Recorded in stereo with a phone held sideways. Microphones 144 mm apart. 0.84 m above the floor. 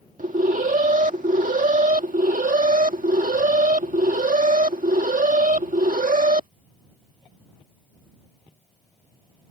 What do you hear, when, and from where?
0.2 s an alarm: 65° right (ahead or behind)